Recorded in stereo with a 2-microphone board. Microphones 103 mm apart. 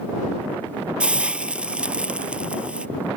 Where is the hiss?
15° right (ahead or behind).